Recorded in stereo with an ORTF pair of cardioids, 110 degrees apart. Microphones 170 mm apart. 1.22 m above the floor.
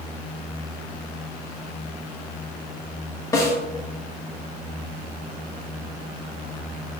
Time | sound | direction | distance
3.3 | a snare drum | 20° left | 1.4 m